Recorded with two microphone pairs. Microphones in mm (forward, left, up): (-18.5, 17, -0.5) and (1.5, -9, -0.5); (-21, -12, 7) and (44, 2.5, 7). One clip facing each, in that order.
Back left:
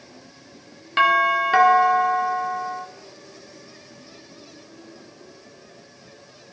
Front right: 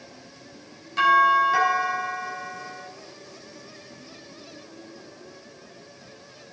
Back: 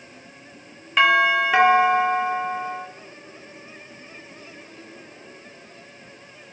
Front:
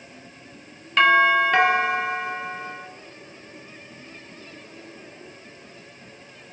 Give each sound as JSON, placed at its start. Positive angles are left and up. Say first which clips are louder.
{"t": 1.0, "sound": "a doorbell", "louder": "even, front 1 dB", "azimuth_deg": 110, "distance_m": 1.7}